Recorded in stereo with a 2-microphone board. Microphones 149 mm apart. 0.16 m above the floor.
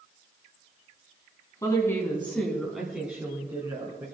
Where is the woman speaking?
25° left (ahead or behind), 1.7 m; by 4.0 s 25° right (ahead or behind), 2 m.